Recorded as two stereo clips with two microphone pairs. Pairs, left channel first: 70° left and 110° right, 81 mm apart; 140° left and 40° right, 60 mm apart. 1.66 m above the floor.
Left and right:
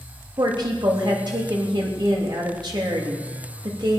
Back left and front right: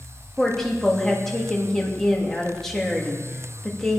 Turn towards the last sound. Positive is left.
turn(degrees=-135)